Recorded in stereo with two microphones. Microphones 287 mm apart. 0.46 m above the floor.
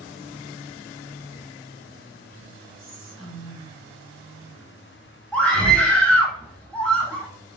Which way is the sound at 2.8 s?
45° right (ahead or behind).